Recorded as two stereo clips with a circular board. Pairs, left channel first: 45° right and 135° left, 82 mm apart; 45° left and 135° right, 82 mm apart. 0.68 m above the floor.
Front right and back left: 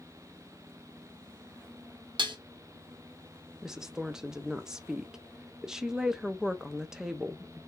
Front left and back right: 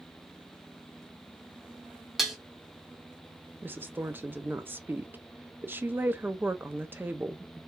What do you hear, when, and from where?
2.2 s dishes clattering: 140° left, 0.9 m
3.6 s a woman speaking: 150° right, 0.6 m